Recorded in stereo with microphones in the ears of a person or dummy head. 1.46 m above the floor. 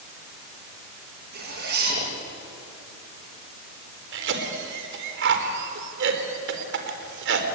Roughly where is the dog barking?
I don't hear a dog barking.